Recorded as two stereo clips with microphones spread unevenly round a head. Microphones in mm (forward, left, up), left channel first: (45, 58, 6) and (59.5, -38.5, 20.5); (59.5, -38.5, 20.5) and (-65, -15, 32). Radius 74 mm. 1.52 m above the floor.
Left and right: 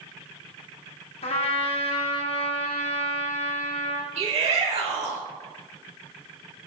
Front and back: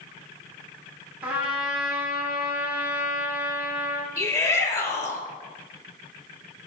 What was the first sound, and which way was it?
A trumpet, 90° left.